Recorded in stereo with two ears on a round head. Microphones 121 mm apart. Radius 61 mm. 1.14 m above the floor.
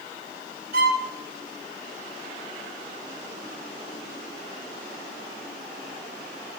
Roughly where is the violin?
Right.